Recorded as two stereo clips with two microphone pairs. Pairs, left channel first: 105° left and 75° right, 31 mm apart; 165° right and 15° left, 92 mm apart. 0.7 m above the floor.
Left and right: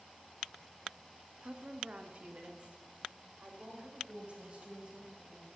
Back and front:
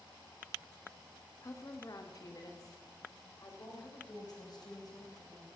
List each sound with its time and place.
1.4 s a woman speaking: 120° right, 1.2 m; by 5.5 s 125° right, 5 m